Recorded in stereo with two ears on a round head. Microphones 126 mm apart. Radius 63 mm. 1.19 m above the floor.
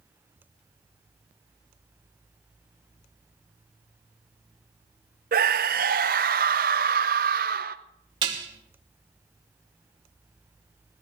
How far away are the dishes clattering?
About 2 m.